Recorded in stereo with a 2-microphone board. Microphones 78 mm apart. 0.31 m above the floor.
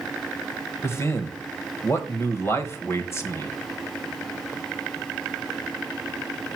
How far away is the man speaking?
About 1.4 m.